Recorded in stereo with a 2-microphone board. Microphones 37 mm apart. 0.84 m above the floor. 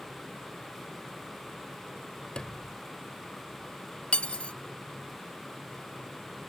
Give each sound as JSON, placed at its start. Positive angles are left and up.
{"t": 2.4, "sound": "a sliding door", "side_deg": 25}
{"t": 4.1, "sound": "cutlery clinking", "side_deg": 35}